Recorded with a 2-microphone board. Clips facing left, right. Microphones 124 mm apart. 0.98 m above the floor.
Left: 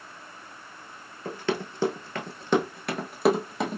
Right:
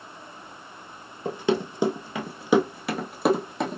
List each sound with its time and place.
1.2 s running footsteps: 15° right (ahead or behind), 1.0 m; by 3.8 s centre (ahead or behind), 1.6 m